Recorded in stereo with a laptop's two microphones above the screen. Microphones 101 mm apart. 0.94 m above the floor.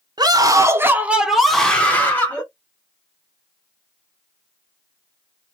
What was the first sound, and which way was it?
A scream, 40° right (ahead or behind).